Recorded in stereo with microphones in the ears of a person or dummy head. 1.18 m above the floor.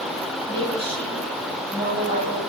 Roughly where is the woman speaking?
Centre.